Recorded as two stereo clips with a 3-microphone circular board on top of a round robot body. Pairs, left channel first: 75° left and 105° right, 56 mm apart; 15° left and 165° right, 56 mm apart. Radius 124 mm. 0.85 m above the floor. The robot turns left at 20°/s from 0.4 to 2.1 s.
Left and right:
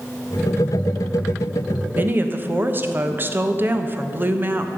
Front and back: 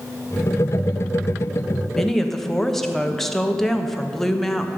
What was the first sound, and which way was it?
A woman speaking, 65° right.